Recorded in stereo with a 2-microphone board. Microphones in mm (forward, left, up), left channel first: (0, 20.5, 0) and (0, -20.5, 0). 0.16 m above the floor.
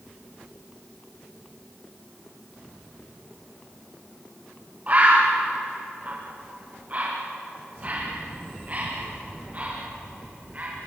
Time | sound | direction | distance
4.9 | a bird | 35° right (ahead or behind) | 8 m